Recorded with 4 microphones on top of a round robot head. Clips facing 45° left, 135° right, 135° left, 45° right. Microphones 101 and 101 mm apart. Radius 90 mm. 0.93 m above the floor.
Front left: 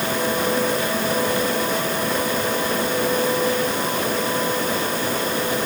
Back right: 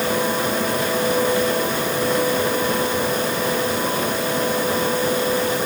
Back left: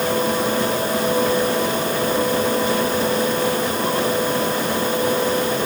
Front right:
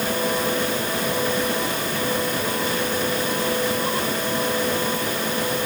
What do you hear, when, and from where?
Only background noise.